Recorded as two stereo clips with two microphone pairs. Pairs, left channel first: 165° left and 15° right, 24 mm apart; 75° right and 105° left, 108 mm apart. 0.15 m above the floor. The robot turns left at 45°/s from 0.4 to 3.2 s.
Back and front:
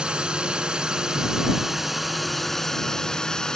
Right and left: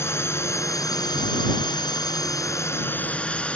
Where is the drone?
20° right; by 3.6 s 145° right.